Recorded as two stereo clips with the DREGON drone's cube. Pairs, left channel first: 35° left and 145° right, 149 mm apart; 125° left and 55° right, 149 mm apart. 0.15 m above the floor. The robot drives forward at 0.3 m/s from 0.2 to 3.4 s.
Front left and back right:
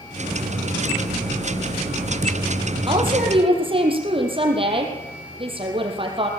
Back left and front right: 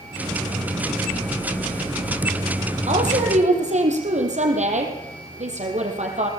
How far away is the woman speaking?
About 5 m.